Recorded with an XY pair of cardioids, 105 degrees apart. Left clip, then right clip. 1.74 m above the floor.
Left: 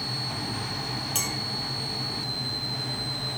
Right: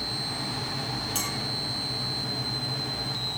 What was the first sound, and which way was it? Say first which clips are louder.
A clink: left 3 dB; 25° left.